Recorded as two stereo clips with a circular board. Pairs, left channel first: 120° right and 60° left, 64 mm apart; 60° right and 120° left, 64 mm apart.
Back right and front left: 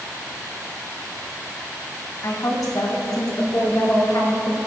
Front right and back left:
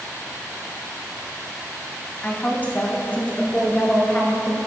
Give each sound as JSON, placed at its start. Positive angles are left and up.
{"t": 2.2, "sound": "a woman speaking", "azimuth_deg": -120, "distance_m": 2.0}